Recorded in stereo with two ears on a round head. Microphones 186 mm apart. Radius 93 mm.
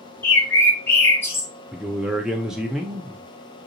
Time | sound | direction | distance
0.2 | a bird | 10° left (ahead or behind) | 0.8 m
1.7 | a man speaking | 5° right (ahead or behind) | 0.6 m